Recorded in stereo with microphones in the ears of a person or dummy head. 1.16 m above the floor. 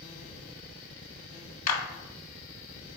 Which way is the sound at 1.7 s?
40° left (ahead or behind).